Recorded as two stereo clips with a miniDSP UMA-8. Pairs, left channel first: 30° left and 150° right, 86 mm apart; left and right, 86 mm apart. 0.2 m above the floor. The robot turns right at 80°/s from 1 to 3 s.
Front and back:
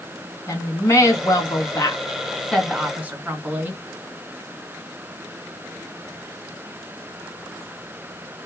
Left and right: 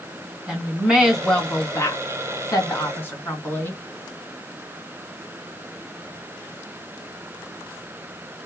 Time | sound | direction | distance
0.5 | a woman speaking | 10° right | 2 m